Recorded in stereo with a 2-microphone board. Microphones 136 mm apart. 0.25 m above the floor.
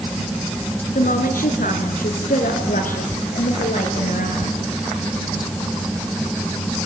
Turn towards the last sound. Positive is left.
turn(degrees=80)